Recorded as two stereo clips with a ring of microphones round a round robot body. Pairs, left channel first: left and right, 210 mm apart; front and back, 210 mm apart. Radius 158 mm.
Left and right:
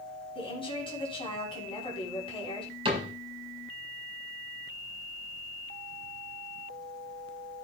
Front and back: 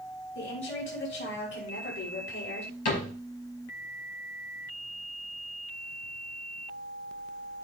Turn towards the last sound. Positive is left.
turn(degrees=-25)